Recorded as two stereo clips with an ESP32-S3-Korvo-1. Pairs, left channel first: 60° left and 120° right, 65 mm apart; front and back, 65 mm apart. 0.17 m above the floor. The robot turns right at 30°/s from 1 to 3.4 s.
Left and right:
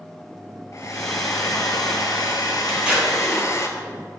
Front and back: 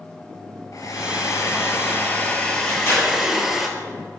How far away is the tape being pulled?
About 3 m.